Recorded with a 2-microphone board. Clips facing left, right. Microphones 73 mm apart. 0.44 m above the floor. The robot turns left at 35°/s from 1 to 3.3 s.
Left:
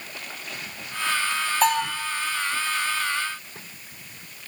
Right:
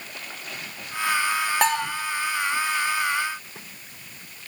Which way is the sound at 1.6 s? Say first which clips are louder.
Left 3 dB; 70° right (ahead or behind).